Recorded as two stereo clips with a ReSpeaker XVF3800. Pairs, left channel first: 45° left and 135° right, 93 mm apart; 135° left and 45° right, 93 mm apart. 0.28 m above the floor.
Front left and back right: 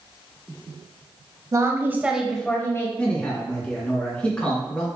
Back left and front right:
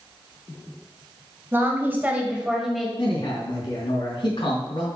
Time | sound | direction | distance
1.5 | a woman speaking | 100° right | 1.6 m
3.0 | a man speaking | 125° left | 3.5 m